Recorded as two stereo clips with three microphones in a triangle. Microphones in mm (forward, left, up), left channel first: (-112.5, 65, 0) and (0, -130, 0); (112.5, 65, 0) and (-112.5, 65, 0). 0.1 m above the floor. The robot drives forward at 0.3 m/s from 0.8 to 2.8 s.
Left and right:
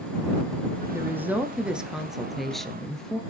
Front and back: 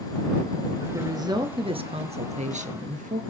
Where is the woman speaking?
125° right, 1.3 m; by 3.2 s 155° right, 1.5 m.